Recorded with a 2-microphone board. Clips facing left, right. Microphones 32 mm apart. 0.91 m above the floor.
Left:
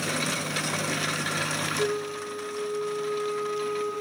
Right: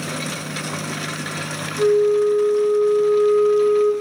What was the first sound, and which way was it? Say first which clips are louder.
A flute: right 13 dB; 40° right (ahead or behind).